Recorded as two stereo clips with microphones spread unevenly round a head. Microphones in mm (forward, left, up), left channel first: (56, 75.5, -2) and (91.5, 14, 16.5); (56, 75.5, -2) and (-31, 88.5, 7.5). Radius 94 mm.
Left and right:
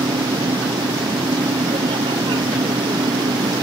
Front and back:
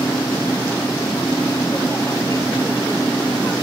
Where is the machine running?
85° right.